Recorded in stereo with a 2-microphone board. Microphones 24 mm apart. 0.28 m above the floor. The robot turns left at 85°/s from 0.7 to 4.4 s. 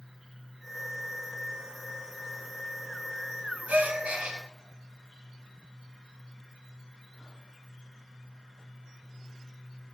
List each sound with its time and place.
3.7 s a gasp: 90° right, 0.6 m; by 4.4 s 150° right, 0.6 m